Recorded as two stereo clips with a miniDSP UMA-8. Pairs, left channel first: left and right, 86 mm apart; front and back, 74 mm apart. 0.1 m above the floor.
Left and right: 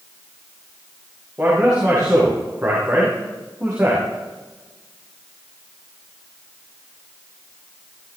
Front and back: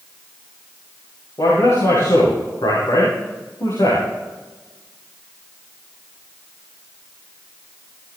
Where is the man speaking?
15° right, 8 m.